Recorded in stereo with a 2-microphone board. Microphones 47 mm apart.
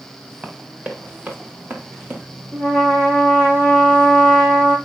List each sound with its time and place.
0.4 s running footsteps: 30° right (ahead or behind), 3.5 m; by 2.2 s 50° right (ahead or behind), 3.5 m
2.5 s a trumpet: 55° right (ahead or behind), 5.5 m